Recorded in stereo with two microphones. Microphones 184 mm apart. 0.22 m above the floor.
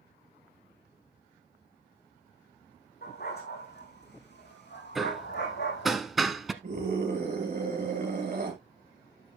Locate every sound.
3.0 s a dog barking: 60° left (ahead or behind), 5.5 m; by 6.0 s 85° left, 3.5 m
5.0 s hammering: centre (ahead or behind), 0.8 m
6.6 s a scream: 50° right (ahead or behind), 3 m